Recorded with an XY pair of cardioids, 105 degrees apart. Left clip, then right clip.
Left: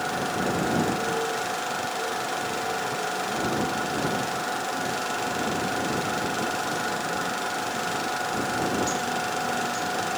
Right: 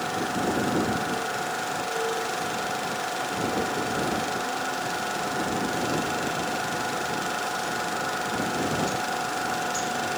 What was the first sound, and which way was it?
Only background noise.